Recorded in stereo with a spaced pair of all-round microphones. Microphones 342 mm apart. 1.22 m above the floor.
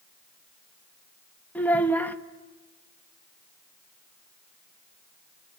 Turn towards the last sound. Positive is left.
turn(degrees=5)  # may be behind; listen again after turning